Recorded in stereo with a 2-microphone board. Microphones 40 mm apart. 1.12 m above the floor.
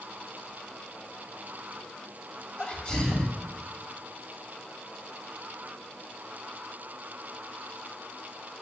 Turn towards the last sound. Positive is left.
turn(degrees=20)  # may be behind; listen again after turning